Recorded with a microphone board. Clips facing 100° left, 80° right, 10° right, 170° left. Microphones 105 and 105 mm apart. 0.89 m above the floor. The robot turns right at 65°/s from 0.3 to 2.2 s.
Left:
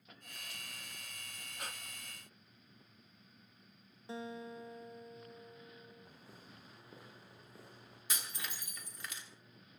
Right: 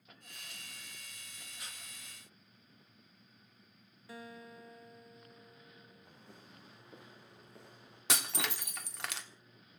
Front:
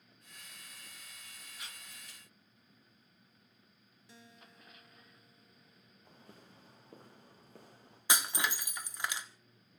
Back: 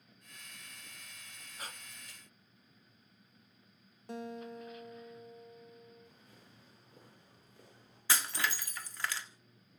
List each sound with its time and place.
1.6 s breathing: 120° left, 0.7 m; by 1.8 s 140° left, 0.7 m
4.1 s a guitar: 155° left, 0.6 m
6.0 s footsteps: 15° left, 8.5 m; by 8.0 s 10° left, 10.5 m
8.1 s breaking glass: 85° right, 1.3 m